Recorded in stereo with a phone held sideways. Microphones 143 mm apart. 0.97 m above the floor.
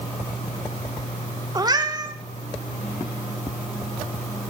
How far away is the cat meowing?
About 0.8 m.